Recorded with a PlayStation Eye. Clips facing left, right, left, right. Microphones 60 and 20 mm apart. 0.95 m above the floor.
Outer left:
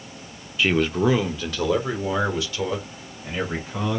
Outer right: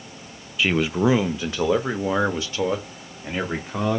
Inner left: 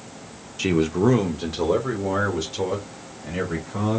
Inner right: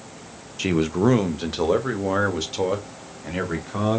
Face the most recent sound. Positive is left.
turn(degrees=-35)  # may be behind; listen again after turning